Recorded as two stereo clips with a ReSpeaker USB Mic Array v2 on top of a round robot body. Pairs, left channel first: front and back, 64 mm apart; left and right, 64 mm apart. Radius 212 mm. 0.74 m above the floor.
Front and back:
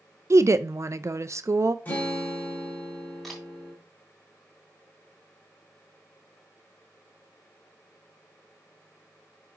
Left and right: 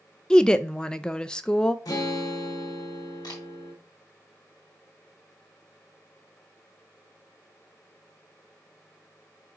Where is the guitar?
65° left, 2 m.